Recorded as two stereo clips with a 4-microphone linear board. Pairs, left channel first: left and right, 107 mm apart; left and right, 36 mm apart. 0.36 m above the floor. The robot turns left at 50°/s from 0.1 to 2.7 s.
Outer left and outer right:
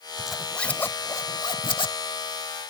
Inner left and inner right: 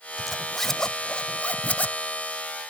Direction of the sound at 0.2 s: 5° right (ahead or behind).